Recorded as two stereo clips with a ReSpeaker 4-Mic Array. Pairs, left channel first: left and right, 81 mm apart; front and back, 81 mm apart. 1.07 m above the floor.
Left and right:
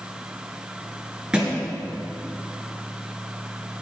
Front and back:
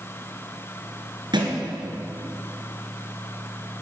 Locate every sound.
1.3 s a thud: 170° right, 3 m